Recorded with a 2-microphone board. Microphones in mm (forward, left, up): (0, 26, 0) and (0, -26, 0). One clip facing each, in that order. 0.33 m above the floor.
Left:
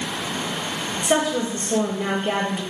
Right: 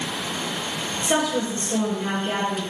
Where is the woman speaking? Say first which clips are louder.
Left 2 dB; 15° left (ahead or behind), 1.2 m; by 2.6 s 45° left (ahead or behind), 1.2 m.